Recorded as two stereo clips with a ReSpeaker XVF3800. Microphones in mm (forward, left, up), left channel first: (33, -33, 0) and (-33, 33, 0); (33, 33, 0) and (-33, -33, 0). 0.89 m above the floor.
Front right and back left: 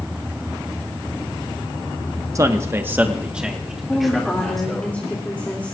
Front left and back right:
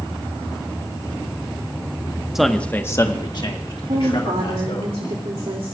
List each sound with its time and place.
2.4 s a man speaking: 140° left, 1.0 m; by 4.9 s 40° left, 2.5 m
3.9 s a woman speaking: 120° right, 2.5 m